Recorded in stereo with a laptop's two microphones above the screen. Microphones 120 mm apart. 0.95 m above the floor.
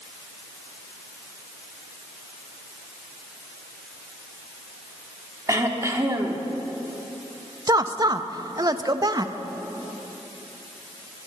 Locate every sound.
5.5 s throat clearing: 25° right (ahead or behind), 1.1 m
7.7 s a woman speaking: 35° right (ahead or behind), 0.6 m